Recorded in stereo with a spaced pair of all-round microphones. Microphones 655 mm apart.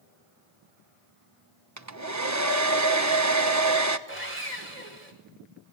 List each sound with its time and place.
1.8 s a hair dryer: 25° right (ahead or behind), 1.2 m
4.1 s sawing: 65° right (ahead or behind), 5 m